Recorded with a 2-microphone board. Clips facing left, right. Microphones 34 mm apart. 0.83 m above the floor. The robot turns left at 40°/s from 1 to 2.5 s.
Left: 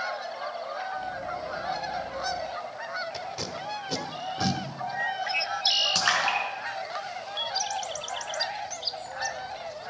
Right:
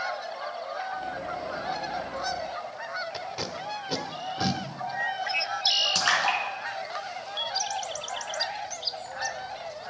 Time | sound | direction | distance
3.1 | tape being pulled | 15° right (ahead or behind) | 1.5 m
6.0 | a splash | 5° left (ahead or behind) | 4 m